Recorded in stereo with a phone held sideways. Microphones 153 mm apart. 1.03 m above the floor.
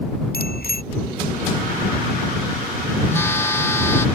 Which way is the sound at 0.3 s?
80° left.